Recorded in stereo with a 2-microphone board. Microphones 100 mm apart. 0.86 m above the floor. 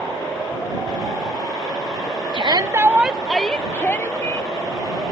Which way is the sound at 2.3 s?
55° right (ahead or behind).